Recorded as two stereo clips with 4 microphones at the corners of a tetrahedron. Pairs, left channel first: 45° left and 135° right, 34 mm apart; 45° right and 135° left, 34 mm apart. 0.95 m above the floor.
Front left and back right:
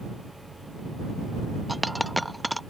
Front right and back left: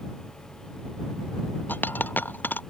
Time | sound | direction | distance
1.7 | a dropped coin | 45° right | ?